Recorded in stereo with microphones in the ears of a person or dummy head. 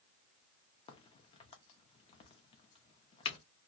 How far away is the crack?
About 0.6 m.